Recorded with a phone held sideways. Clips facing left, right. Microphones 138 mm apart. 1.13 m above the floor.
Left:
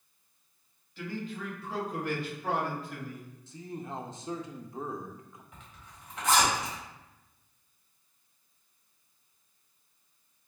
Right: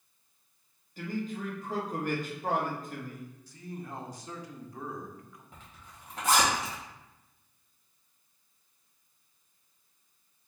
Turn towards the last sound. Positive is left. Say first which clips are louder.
# even
turn(degrees=-35)  # may be behind; listen again after turning